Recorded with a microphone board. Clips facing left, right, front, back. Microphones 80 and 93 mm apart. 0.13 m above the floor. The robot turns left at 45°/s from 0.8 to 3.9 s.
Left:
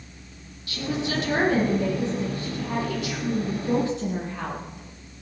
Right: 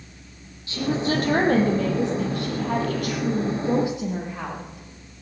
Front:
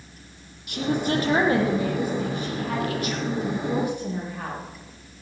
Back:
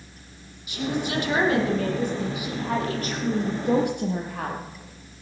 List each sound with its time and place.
0.7 s a woman speaking: 30° right, 5.5 m; by 4.6 s 170° right, 5.5 m